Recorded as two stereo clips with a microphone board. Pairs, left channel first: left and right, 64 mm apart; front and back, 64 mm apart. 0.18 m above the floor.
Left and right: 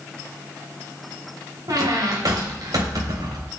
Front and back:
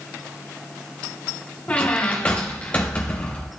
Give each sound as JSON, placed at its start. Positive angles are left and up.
{"t": 1.7, "sound": "a squeak", "azimuth_deg": -70, "distance_m": 2.5}